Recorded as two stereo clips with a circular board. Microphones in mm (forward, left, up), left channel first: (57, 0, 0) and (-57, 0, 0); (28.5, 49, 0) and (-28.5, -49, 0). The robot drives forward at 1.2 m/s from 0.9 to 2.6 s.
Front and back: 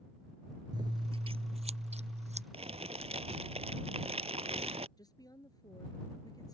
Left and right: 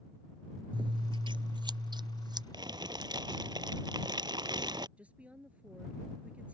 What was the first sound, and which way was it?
Scissors, 145° right.